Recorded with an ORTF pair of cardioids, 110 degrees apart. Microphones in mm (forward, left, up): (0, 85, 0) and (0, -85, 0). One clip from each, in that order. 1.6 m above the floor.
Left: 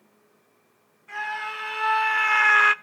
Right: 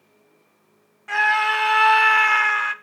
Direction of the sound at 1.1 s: 65° right.